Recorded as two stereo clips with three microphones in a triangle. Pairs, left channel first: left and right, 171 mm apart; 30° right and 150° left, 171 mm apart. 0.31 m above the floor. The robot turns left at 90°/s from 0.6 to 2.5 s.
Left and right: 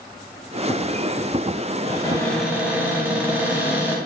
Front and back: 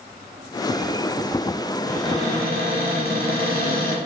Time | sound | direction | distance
1.9 | a cupboard door | 45° left | 0.7 m